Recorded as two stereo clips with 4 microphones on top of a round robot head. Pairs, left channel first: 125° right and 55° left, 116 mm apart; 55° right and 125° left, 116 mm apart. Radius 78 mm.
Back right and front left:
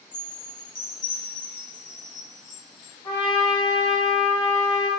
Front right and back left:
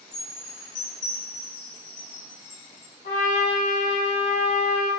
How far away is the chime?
About 0.7 m.